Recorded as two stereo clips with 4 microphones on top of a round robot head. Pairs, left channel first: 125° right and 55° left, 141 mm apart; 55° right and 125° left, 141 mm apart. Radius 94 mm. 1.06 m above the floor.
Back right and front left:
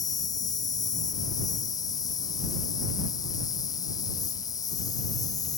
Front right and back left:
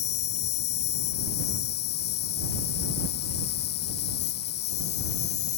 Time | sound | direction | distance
0.0 | an insect | 60° right | ?